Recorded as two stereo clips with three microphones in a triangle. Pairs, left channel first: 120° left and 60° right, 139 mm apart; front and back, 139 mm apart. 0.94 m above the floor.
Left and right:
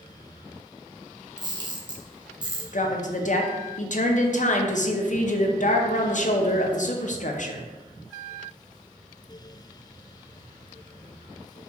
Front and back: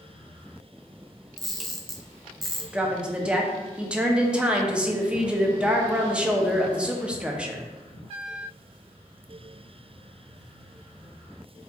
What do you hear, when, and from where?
1.4 s a camera shutter: 85° right, 0.6 m
2.7 s a woman speaking: 100° left, 0.5 m